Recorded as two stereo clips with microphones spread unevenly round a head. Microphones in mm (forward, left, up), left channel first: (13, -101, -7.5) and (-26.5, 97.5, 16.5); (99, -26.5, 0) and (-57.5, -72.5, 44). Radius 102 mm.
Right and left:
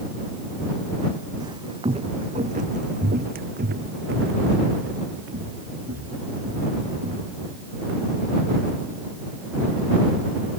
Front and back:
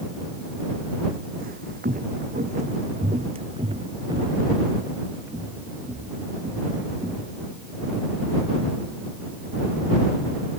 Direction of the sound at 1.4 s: 170° left.